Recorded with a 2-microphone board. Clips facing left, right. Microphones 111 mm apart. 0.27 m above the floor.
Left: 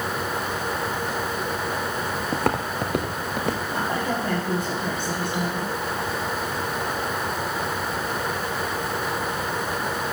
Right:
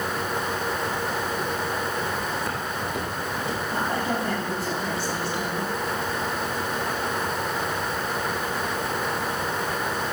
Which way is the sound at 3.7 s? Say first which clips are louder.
Even; 20° left (ahead or behind).